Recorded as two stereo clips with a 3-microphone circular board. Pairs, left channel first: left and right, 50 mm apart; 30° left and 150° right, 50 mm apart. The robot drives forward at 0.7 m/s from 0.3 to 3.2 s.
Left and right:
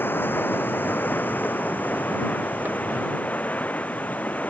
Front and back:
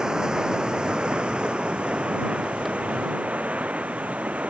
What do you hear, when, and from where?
0.0 s running water: 135° left; by 4.5 s 150° left